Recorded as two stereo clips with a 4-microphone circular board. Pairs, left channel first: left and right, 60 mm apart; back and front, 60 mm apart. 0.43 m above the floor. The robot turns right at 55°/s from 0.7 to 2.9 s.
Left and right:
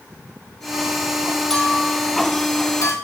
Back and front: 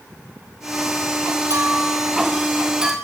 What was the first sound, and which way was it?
A clink, 5° left.